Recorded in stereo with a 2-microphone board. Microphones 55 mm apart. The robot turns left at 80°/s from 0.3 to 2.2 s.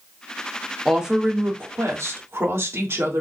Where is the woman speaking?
Straight ahead, 1.3 m; by 3.2 s 105° right, 1.3 m.